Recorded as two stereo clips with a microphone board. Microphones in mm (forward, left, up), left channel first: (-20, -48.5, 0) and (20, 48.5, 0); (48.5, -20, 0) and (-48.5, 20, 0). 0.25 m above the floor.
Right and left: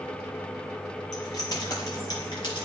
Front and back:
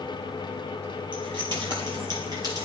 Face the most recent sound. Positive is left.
turn(degrees=-150)